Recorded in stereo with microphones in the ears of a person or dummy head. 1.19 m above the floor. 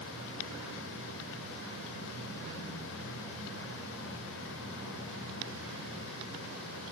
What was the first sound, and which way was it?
Only background noise.